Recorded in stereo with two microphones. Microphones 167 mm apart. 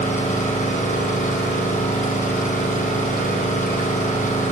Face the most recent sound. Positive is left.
turn(degrees=45)  # may be behind; listen again after turning